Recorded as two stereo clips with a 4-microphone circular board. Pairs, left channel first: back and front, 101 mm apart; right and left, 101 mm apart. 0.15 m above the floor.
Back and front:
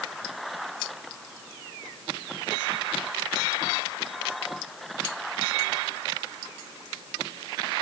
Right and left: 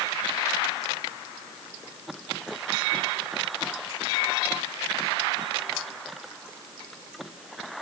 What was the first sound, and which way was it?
Only background noise.